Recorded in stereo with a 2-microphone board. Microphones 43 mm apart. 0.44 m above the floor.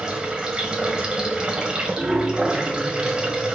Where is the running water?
20° right (ahead or behind), 1.8 m.